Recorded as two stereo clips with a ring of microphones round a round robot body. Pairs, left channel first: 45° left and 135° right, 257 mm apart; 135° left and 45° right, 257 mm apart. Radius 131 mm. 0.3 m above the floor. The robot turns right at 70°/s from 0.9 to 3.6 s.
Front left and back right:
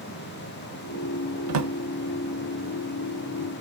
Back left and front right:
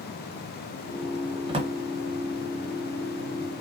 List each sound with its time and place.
1.5 s a drawer: 115° right, 0.9 m; by 1.7 s 100° right, 0.9 m